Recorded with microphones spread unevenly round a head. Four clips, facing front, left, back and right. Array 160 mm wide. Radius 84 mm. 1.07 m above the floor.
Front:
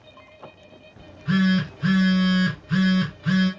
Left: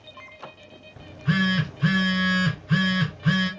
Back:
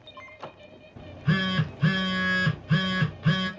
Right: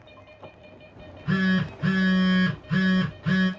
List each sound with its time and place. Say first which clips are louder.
1.0 s a phone buzzing: left 2 dB, front 5 dB; 155° left, 1.0 m